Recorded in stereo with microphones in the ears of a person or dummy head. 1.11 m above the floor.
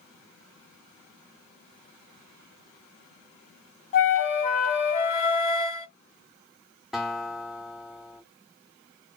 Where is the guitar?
Centre (ahead or behind), 0.9 m.